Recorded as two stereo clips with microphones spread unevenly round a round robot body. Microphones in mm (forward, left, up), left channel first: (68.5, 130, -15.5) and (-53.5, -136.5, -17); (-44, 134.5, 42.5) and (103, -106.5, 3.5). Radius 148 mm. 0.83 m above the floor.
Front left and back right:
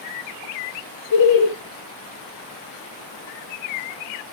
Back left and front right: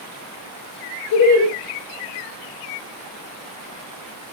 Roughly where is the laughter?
Left.